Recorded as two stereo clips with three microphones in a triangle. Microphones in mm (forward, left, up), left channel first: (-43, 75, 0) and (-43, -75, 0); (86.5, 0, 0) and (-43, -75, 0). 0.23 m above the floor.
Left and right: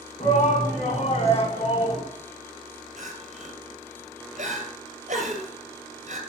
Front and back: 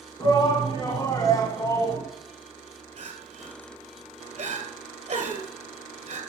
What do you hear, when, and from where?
0.2 s a shout: 90° left, 2.5 m; by 2.0 s 85° left, 1.8 m
3.0 s crying: 110° right, 2 m